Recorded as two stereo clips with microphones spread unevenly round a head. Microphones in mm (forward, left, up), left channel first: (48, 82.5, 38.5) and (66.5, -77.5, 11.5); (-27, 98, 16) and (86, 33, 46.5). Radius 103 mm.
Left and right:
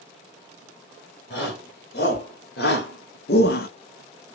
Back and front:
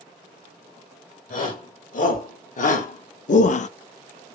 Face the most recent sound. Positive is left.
turn(degrees=135)